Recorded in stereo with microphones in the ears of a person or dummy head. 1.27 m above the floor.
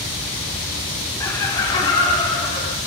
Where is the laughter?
15° left (ahead or behind), 0.7 m; by 2.8 s 35° left (ahead or behind), 1.5 m.